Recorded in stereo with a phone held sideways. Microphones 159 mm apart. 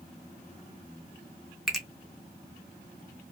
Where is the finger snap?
Centre (ahead or behind), 0.7 m.